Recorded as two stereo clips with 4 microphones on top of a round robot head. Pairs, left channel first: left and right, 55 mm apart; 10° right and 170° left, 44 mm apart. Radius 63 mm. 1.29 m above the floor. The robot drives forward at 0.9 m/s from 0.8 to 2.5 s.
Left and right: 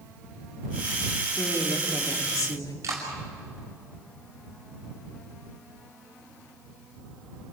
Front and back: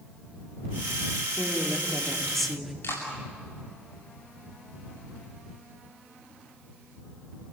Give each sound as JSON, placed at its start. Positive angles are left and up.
{"t": 1.4, "sound": "a woman speaking", "azimuth_deg": 60, "distance_m": 3.0}
{"t": 2.8, "sound": "a clap", "azimuth_deg": -50, "distance_m": 8.5}